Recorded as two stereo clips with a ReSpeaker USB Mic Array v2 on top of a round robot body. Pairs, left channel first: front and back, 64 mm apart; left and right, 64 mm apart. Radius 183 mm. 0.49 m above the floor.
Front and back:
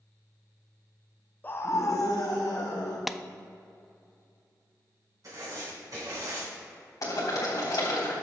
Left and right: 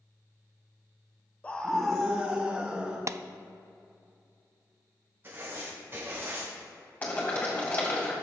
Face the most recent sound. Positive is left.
turn(degrees=25)